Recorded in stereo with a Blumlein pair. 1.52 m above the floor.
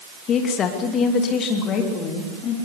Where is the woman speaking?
30° left, 2.5 m.